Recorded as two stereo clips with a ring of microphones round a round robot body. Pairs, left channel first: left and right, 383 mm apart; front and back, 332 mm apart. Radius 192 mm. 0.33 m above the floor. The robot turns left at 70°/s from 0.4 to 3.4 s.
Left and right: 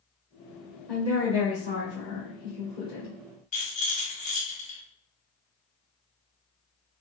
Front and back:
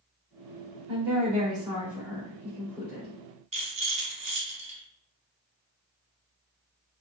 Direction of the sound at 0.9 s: 175° left.